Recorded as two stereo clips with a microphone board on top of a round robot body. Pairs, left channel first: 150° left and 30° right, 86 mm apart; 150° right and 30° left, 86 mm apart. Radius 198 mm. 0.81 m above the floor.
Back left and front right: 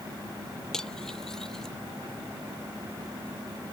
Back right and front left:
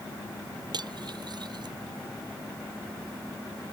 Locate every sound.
0.7 s cutlery clinking: 65° left